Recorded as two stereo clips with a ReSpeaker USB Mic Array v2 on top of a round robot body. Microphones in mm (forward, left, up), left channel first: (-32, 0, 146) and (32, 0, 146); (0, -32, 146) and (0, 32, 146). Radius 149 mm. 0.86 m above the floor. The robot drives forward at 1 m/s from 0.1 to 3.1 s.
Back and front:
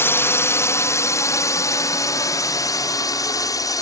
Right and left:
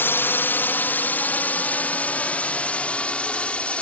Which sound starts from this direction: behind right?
A drone, at 0.0 s.